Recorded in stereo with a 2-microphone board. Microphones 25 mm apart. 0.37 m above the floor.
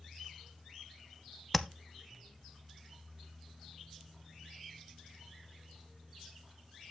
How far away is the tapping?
About 0.6 m.